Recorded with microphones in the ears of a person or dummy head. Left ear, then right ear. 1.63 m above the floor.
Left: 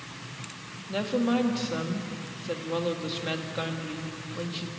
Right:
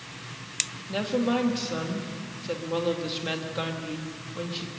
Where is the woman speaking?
5° right (ahead or behind), 2.5 m.